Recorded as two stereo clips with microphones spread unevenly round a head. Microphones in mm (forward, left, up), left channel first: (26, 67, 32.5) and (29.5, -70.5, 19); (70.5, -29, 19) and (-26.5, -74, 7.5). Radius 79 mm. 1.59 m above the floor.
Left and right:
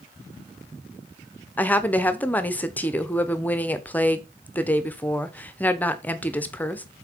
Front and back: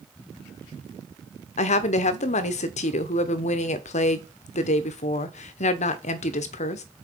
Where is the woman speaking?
15° left, 0.9 m.